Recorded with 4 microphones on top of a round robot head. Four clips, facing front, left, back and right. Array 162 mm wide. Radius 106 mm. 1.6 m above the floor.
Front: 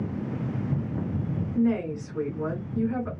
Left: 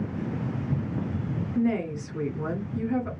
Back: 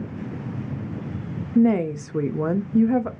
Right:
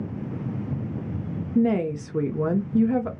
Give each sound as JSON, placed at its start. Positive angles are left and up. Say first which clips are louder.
{"t": 1.6, "sound": "a woman speaking", "louder": "right 5 dB, back 7 dB", "azimuth_deg": -155, "distance_m": 0.5}